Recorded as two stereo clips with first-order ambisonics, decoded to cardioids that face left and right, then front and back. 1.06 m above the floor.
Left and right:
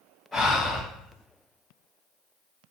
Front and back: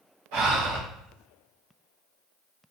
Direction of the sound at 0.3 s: 175° left.